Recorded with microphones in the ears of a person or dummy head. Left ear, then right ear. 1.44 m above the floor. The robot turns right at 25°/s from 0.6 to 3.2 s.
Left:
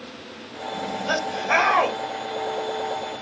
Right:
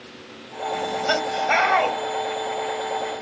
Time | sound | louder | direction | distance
0.7 | laughter | right 3 dB | 30° right | 0.9 m